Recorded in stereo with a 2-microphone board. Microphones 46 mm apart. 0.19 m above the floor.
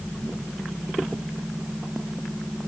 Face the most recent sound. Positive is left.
No sound to turn to.